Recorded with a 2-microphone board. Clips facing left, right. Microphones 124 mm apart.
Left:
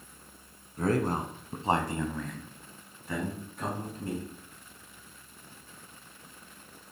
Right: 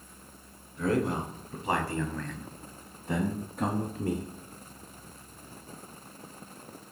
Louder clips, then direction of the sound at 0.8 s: Even; 50° left (ahead or behind).